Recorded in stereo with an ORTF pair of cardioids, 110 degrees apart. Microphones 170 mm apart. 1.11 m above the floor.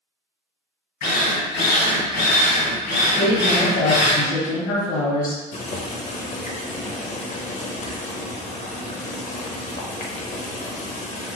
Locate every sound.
1.0 s a drill: 65° left, 1.2 m
3.1 s a woman speaking: 60° left, 1.0 m
5.5 s boiling: 45° left, 0.6 m